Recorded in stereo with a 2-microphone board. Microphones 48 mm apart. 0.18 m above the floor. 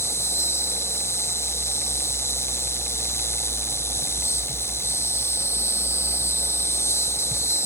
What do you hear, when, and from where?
0.0 s an insect: 70° left (ahead or behind)